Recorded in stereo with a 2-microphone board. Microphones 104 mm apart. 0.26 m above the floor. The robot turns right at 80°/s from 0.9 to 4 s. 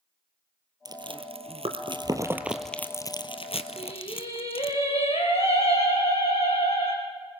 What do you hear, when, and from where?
0.8 s chewing: 45° right (ahead or behind), 1.5 m; by 4.8 s 70° left (ahead or behind), 1.5 m
3.8 s singing: 65° left (ahead or behind), 5 m; by 7.0 s 85° left, 5 m